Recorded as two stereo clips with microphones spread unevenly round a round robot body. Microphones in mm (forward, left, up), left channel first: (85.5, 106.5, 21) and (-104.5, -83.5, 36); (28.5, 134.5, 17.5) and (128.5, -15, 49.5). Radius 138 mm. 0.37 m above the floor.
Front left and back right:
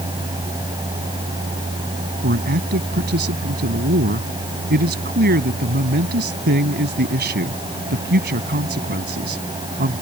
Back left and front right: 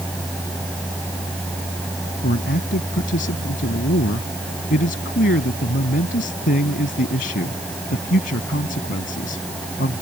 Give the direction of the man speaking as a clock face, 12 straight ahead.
6 o'clock.